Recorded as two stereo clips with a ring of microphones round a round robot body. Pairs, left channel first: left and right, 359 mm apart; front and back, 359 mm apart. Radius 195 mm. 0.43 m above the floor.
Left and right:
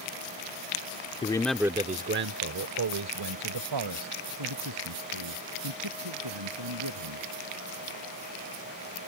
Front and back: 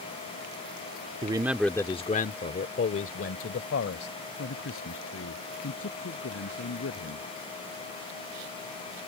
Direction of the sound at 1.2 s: 135° left.